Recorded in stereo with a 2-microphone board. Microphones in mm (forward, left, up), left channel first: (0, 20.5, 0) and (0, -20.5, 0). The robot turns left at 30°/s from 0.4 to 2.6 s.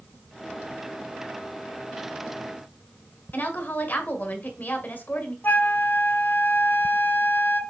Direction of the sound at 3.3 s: 45° left (ahead or behind).